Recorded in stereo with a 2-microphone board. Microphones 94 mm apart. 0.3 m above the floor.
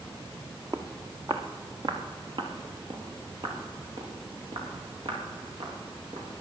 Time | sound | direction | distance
0.7 | footsteps | 30° right (ahead or behind) | 1.4 m